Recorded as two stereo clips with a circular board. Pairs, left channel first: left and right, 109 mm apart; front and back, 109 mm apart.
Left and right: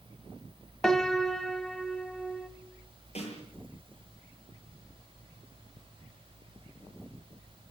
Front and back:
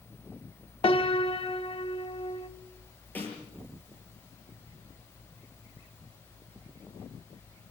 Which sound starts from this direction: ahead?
A piano, at 0.8 s.